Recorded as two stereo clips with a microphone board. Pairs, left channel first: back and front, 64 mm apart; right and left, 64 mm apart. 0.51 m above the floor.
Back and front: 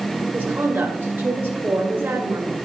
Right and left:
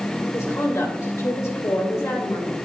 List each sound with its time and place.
0.3 s a woman speaking: 55° right, 2.0 m